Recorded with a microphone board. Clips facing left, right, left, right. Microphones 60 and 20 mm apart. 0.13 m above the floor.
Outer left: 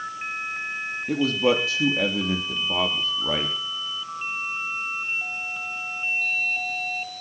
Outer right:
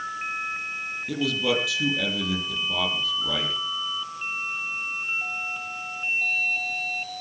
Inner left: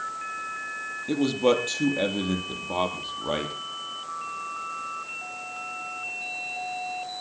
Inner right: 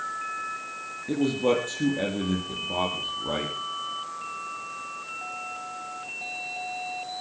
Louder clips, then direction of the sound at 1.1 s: Outer left 4 dB, inner left 1 dB; 35° left (ahead or behind).